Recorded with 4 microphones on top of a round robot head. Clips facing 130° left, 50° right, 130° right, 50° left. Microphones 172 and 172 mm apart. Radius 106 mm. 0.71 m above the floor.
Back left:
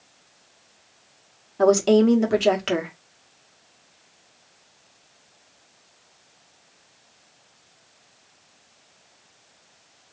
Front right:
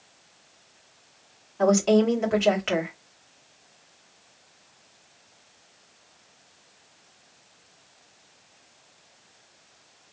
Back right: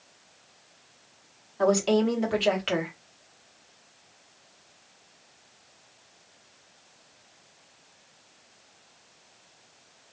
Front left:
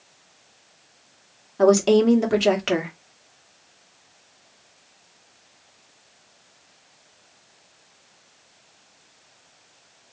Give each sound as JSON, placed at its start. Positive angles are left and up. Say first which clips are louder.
{"t": 1.6, "sound": "a woman speaking", "louder": "back left 3 dB, front left 7 dB", "azimuth_deg": 80, "distance_m": 1.6}